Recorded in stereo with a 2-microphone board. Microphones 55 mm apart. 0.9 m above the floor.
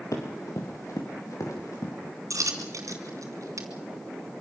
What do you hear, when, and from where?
0.1 s running footsteps: 80° left, 6 m
2.3 s a dropped coin: 80° right, 3 m